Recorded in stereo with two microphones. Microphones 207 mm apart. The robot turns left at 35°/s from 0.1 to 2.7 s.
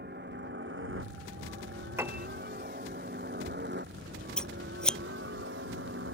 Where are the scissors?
5° left (ahead or behind).